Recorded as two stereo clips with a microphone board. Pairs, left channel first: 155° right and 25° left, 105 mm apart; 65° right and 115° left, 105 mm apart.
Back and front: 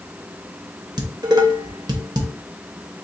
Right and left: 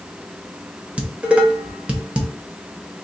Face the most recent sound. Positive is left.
turn(degrees=40)